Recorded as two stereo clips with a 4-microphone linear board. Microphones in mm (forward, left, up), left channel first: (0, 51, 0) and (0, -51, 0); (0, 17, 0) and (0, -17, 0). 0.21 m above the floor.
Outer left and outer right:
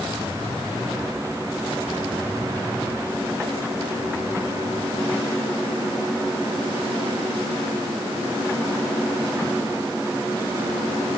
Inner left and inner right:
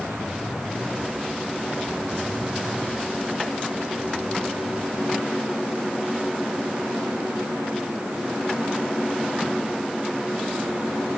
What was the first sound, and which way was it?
Only background noise.